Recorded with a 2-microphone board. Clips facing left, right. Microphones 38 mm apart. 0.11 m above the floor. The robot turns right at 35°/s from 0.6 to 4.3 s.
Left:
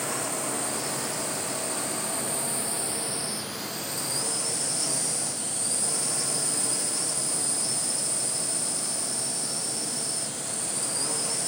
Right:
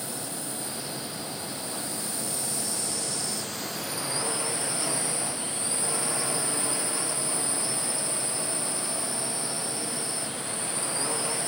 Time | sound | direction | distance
0.0 | a drone | 75° left | ?